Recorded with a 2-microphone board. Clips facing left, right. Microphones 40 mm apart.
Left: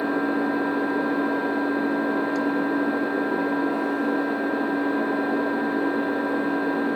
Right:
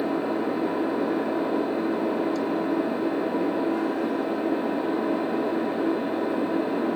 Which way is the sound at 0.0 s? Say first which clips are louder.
Left 2 dB; 70° left (ahead or behind).